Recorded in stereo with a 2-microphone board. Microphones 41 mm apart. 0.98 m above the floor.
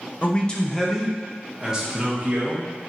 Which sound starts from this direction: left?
A man speaking, at 0.2 s.